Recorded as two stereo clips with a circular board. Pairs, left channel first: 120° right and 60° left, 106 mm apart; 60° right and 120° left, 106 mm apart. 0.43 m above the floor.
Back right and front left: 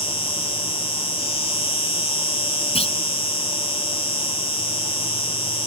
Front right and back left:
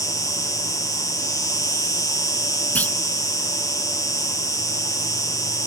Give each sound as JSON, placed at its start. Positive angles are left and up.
{"t": 0.0, "sound": "an insect", "azimuth_deg": -110}
{"t": 2.8, "sound": "a clunk", "azimuth_deg": -135}